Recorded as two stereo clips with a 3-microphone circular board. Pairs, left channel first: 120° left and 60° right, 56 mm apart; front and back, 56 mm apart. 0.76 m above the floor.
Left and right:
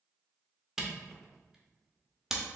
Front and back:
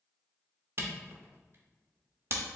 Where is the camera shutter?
140° right, 0.8 m.